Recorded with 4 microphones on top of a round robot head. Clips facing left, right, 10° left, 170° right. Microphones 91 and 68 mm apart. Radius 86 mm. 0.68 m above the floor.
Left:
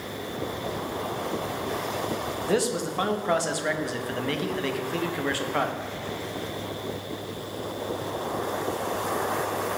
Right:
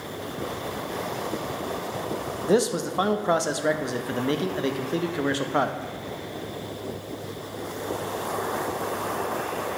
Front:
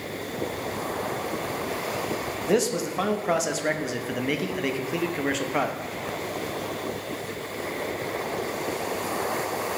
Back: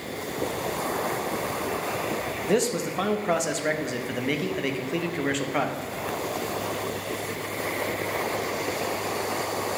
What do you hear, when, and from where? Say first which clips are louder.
2.5 s a man speaking: right 4 dB, front 1 dB; 75° right, 0.6 m